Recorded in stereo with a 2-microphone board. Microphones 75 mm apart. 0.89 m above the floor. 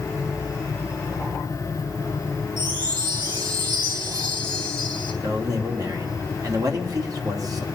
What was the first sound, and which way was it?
A chime, 80° right.